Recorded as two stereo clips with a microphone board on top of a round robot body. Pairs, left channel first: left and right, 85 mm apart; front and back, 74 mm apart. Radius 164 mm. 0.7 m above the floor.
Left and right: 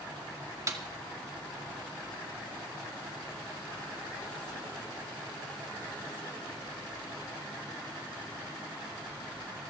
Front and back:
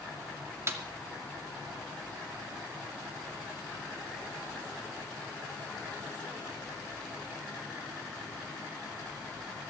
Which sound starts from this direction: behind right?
A snare drum, at 0.7 s.